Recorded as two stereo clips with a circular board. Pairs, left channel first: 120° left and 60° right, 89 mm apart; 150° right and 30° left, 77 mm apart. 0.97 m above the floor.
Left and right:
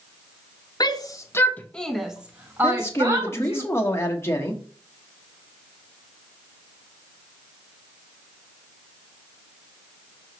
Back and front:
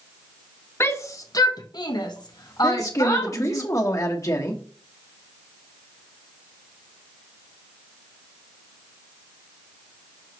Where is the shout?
160° left, 1.2 m; by 3.6 s 110° right, 2.0 m.